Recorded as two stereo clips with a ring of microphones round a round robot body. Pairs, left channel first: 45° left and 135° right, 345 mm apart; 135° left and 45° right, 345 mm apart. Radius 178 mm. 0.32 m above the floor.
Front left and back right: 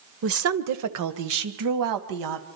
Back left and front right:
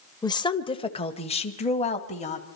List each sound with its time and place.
0.2 s a woman speaking: 155° right, 1.1 m